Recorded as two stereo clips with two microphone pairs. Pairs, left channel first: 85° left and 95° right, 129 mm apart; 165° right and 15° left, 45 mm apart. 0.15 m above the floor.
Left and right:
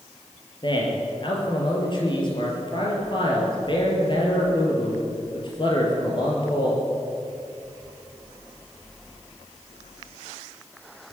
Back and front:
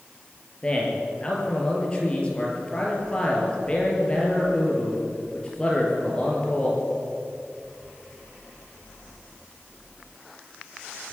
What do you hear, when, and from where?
0.6 s a man speaking: 130° left, 4 m